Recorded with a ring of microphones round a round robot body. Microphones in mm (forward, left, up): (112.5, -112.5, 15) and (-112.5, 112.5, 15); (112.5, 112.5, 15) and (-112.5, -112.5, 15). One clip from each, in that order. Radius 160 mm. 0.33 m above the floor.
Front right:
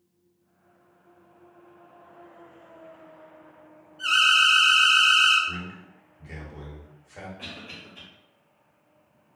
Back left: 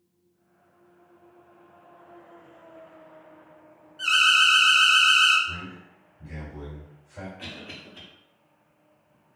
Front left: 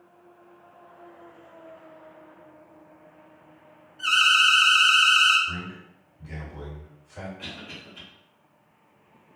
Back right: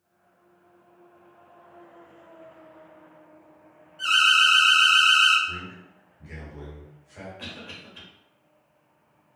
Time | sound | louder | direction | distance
4.0 | an alarm | even, even | 175° right | 1.3 m
5.5 | a man speaking | front right 2 dB, front left 1 dB | 55° right | 1.6 m
7.4 | a cough | even, even | 140° right | 1.3 m